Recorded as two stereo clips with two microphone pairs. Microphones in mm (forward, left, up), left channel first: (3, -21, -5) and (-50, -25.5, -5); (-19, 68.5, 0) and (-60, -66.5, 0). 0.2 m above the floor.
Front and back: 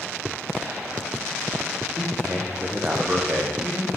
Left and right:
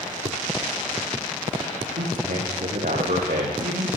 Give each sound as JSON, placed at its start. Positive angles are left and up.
{"t": 1.9, "sound": "a man speaking", "azimuth_deg": -115, "distance_m": 8.0}